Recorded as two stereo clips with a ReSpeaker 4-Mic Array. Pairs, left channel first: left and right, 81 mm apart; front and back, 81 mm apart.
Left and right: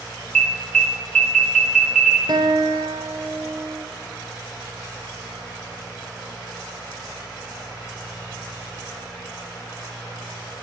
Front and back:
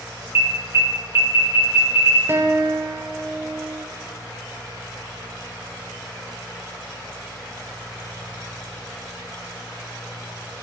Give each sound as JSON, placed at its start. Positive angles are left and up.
{"t": 0.3, "sound": "an alarm", "azimuth_deg": 160, "distance_m": 1.3}
{"t": 2.3, "sound": "a guitar", "azimuth_deg": -120, "distance_m": 1.0}